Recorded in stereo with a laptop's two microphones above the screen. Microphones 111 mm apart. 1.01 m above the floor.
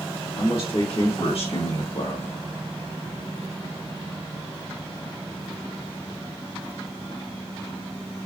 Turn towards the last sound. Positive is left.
turn(degrees=70)  # may be behind; listen again after turning